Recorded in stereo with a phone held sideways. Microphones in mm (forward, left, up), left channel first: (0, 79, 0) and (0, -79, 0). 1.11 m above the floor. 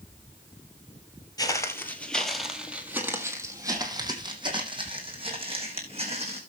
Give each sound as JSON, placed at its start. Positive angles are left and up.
{"t": 1.4, "sound": "footsteps", "side_deg": 25, "distance_m": 1.8}